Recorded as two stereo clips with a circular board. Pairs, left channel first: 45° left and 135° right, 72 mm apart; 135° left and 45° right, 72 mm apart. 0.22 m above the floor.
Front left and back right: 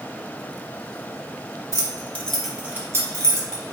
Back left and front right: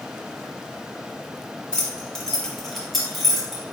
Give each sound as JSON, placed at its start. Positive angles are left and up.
{"t": 1.7, "sound": "keys jangling", "azimuth_deg": 60, "distance_m": 1.2}